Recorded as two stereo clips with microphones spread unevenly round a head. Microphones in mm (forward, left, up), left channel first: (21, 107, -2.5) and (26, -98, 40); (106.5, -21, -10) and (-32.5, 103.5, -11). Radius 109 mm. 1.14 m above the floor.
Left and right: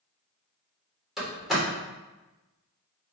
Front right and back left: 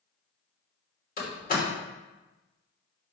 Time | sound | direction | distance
1.2 | a door slam | straight ahead | 3 m